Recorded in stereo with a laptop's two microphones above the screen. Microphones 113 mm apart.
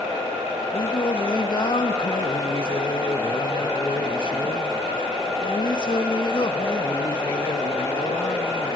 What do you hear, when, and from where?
0.7 s singing: 45° left (ahead or behind), 1.4 m